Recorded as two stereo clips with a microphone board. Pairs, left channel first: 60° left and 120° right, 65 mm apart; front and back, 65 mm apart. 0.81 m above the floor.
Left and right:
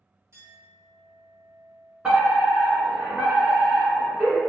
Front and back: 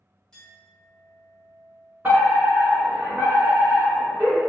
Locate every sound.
0.3 s a clink: 80° right, 2.0 m
2.0 s a fire alarm: 165° right, 1.7 m